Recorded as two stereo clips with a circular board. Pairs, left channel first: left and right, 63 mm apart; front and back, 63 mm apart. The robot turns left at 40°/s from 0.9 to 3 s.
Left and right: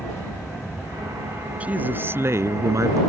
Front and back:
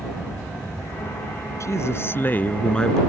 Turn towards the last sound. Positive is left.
turn(degrees=-80)